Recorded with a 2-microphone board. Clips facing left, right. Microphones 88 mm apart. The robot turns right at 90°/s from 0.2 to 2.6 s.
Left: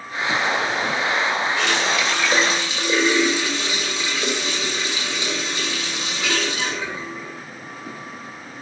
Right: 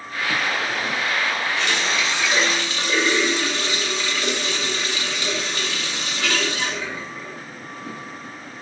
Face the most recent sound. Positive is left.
turn(degrees=160)